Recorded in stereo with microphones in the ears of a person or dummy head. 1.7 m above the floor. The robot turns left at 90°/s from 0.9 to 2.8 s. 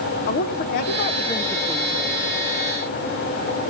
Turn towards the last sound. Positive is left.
turn(degrees=-100)